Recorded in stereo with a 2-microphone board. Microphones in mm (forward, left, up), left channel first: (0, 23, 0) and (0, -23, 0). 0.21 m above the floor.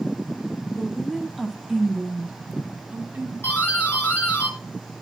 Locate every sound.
0.7 s a woman speaking: 10° left (ahead or behind), 2 m; by 3.3 s 25° right (ahead or behind), 2 m
3.4 s a doorbell: 60° left (ahead or behind), 4.5 m